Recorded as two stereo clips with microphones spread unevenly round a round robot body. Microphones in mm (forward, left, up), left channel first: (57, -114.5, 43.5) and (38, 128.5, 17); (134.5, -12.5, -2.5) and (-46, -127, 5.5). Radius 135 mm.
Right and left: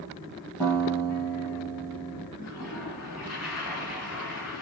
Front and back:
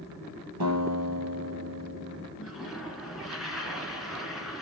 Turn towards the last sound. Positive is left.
turn(degrees=-60)